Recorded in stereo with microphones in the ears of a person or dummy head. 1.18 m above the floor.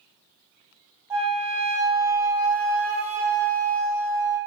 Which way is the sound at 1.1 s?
10° right (ahead or behind).